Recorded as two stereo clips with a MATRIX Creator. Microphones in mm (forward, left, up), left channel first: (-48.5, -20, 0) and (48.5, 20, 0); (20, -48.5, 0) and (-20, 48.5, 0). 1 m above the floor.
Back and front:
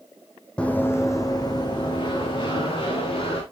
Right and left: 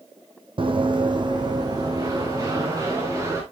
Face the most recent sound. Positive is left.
turn(degrees=175)